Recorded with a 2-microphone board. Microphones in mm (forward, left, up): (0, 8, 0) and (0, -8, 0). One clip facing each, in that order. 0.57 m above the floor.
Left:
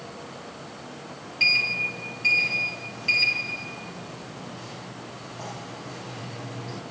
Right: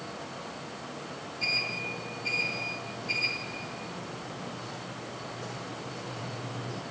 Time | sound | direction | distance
1.4 | a sliding door | 70° left (ahead or behind) | 5.5 m